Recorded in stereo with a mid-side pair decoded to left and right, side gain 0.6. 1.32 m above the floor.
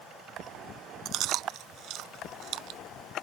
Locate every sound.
1.1 s chewing: 60° right